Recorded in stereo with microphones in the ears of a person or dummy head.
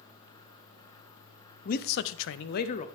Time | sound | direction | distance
1.6 | a man speaking | 50° left (ahead or behind) | 0.8 m